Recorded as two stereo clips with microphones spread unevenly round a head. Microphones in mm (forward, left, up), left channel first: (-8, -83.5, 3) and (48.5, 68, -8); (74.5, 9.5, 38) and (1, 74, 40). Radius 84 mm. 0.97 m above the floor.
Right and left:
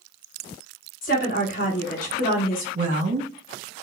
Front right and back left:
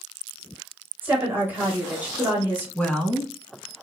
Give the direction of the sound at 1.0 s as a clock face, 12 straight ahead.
5 o'clock.